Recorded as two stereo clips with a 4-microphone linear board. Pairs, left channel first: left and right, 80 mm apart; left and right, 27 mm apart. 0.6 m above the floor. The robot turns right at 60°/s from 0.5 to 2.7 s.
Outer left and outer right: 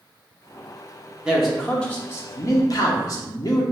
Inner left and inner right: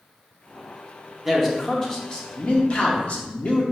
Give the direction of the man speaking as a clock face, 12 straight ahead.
12 o'clock.